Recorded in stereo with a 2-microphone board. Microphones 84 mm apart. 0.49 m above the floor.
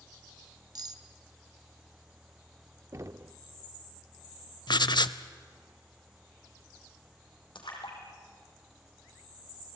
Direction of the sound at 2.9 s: 35° right (ahead or behind).